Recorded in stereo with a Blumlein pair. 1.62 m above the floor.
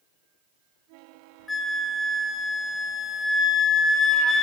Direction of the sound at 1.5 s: 10° left.